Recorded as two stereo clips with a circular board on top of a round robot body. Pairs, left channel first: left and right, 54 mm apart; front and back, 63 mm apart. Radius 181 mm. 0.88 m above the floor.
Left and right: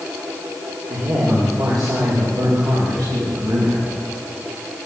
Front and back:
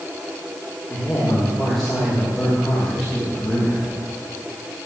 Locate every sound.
0.9 s a man speaking: 80° right, 2.5 m; by 3.8 s 95° right, 6.5 m